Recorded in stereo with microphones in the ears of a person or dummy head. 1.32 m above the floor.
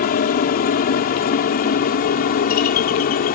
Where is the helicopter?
40° left (ahead or behind).